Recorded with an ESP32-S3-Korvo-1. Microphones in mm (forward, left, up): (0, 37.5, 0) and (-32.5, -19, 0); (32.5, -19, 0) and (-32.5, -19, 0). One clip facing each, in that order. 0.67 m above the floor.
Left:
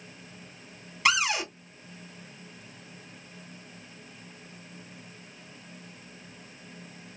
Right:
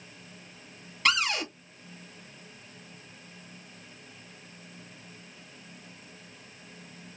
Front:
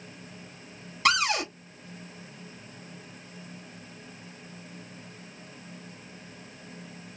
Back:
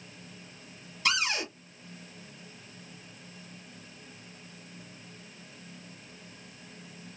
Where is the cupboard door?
20° right, 0.9 m.